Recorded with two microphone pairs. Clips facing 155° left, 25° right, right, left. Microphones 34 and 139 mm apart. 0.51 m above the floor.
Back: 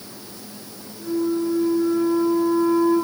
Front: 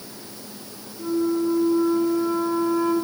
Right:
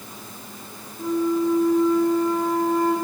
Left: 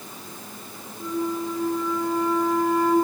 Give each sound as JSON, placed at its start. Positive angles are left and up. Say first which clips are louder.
{"t": 1.0, "sound": "a flute", "louder": "even, right 6 dB", "azimuth_deg": -40, "distance_m": 7.5}